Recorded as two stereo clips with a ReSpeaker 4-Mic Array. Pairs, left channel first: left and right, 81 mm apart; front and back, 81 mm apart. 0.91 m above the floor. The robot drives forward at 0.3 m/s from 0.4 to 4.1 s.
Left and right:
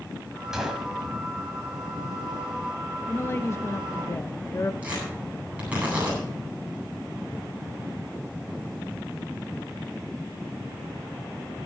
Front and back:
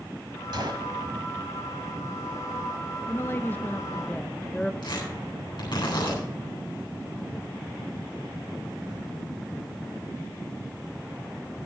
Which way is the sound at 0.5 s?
175° right.